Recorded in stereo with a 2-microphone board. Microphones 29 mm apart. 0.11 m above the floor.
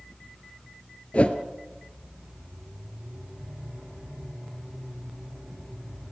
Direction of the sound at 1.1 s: 45° left (ahead or behind).